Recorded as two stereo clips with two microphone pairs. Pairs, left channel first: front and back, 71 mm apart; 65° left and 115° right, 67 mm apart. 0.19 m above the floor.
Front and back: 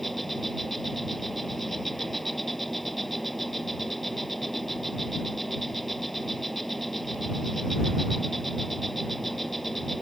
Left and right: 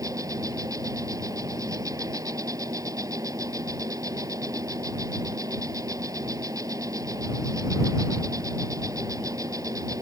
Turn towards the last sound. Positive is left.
turn(degrees=-85)